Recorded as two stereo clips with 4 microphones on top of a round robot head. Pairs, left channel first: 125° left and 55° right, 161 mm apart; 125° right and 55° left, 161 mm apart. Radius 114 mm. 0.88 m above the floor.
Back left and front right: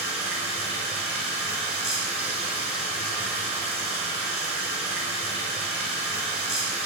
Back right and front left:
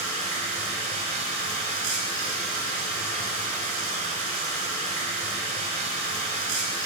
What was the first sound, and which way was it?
Running water, 25° left.